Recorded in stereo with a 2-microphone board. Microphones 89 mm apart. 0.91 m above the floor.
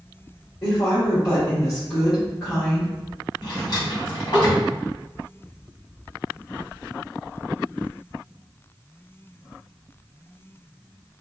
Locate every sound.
0.6 s a woman speaking: 40° left (ahead or behind), 1.0 m
3.4 s a drawer: 70° left (ahead or behind), 1.4 m